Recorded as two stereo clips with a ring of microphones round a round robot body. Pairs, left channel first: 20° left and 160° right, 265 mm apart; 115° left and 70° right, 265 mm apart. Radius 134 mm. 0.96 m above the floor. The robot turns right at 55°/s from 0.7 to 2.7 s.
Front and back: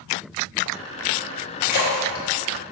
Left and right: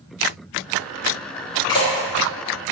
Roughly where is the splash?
Ahead left.